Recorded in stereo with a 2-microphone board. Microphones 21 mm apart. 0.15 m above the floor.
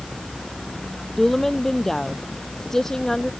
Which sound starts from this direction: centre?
A woman speaking, at 1.2 s.